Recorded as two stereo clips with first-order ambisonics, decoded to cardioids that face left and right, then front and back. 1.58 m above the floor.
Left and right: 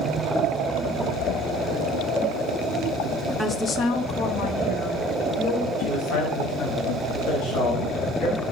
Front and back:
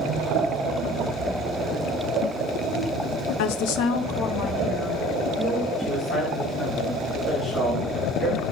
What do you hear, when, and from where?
3.4 s a woman speaking: straight ahead, 0.7 m; by 5.7 s 70° left, 1.9 m
5.8 s a man speaking: 65° left, 4 m